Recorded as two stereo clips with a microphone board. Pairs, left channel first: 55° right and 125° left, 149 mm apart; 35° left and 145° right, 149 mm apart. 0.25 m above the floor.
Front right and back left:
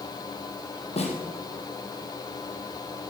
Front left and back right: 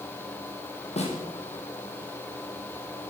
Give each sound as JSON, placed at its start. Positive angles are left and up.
{"t": 1.0, "sound": "a snare drum", "azimuth_deg": -10, "distance_m": 3.5}